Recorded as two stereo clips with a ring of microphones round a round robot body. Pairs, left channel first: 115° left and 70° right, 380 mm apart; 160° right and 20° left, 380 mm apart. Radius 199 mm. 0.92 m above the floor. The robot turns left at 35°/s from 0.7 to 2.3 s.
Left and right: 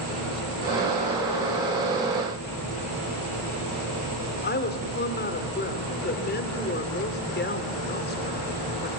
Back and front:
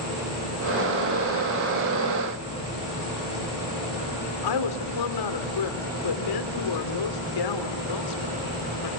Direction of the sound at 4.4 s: 175° left.